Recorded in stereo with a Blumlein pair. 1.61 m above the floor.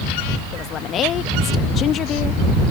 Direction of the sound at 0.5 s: 30° left.